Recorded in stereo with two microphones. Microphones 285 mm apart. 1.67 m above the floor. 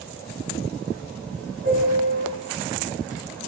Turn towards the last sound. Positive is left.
turn(degrees=-50)  # may be behind; listen again after turning